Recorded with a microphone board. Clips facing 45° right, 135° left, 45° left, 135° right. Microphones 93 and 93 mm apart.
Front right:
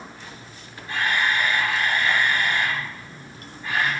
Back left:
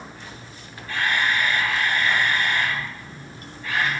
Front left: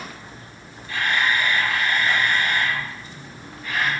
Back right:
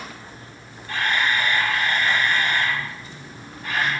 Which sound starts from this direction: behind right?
A camera shutter, at 0.9 s.